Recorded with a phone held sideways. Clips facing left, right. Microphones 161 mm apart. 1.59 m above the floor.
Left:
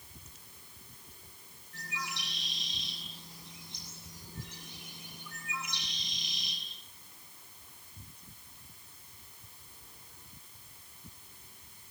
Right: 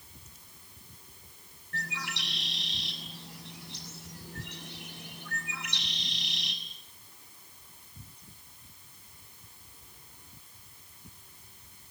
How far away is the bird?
About 6 m.